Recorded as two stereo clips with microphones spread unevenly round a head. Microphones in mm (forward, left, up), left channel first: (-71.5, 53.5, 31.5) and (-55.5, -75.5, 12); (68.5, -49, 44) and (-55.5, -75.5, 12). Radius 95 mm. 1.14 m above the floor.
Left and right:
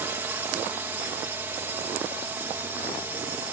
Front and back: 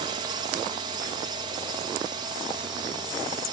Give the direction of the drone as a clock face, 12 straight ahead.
5 o'clock.